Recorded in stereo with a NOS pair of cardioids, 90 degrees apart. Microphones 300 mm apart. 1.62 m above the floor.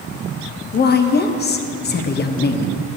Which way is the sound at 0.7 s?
35° left.